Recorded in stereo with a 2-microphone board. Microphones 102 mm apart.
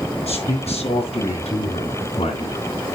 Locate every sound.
0.3 s a man speaking: 85° left, 5.5 m; by 2.9 s 75° left (ahead or behind), 4 m